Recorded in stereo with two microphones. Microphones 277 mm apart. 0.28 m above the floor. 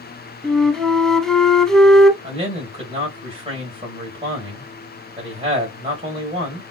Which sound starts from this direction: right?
A man speaking, at 2.2 s.